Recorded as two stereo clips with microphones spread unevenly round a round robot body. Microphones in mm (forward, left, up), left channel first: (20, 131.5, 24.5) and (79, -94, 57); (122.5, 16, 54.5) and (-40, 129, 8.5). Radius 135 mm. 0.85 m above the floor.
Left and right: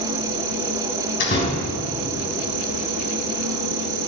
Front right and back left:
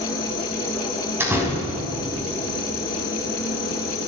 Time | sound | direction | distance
0.0 | an insect | 95° right | 0.9 m
1.2 | a door slam | 65° left | 4.5 m